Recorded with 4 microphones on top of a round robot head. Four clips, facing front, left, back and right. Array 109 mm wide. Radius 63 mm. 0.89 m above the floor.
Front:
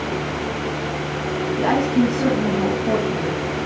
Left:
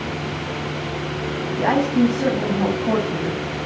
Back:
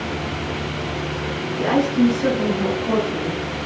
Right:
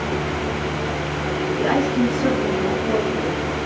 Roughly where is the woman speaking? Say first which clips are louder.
Left 3 dB, back 1 dB; ahead left.